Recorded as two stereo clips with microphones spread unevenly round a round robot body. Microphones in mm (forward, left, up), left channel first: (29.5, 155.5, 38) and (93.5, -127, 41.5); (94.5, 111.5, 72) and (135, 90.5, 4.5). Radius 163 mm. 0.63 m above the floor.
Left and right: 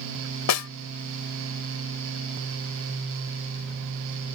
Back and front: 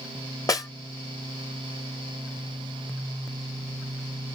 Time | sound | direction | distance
0.5 | a snare drum | 140° left | ?